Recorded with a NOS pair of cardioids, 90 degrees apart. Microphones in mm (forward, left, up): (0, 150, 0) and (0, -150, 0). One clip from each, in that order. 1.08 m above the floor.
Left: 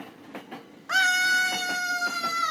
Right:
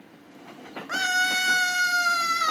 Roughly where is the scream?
Ahead.